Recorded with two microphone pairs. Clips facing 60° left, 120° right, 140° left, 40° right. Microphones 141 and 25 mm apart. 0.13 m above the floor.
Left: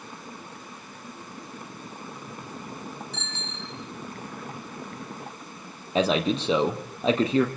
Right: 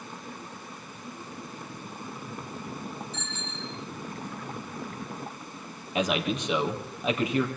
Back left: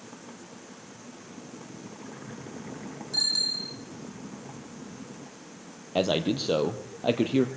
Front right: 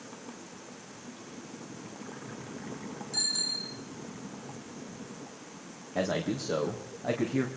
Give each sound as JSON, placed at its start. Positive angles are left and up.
{"t": 3.1, "sound": "a bicycle bell", "azimuth_deg": 75, "distance_m": 4.5}
{"t": 6.0, "sound": "a man speaking", "azimuth_deg": 120, "distance_m": 3.5}